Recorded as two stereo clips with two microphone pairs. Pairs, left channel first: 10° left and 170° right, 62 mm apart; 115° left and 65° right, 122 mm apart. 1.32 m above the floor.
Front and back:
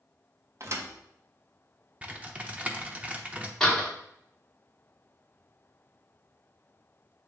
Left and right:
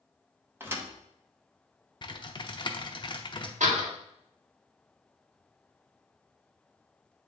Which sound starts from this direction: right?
A door slam, at 3.6 s.